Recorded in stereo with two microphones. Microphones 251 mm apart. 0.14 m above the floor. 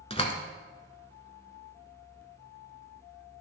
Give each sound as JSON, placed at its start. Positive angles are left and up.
{"t": 0.1, "sound": "a door slam", "side_deg": 25, "distance_m": 1.1}